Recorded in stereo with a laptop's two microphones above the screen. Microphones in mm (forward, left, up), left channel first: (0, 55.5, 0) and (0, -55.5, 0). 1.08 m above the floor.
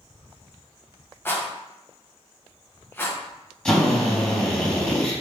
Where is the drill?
5° left (ahead or behind), 2.5 m.